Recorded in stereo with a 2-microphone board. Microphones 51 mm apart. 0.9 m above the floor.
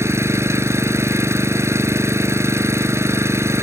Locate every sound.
0.0 s an engine running: 60° right (ahead or behind)